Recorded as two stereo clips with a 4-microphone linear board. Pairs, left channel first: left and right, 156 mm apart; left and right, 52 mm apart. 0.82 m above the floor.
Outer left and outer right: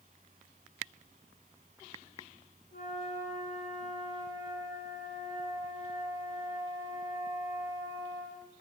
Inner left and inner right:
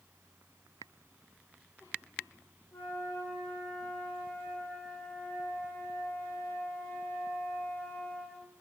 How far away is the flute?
About 3.5 m.